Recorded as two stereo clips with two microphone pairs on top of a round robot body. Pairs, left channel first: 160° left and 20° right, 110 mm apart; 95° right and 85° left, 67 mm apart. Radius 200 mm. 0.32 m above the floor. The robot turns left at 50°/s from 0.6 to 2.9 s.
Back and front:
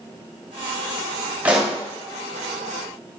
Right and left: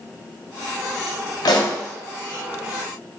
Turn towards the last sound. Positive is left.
turn(degrees=-170)